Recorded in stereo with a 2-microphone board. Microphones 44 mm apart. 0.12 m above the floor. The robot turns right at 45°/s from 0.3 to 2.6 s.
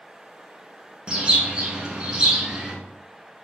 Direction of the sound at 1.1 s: 20° right (ahead or behind).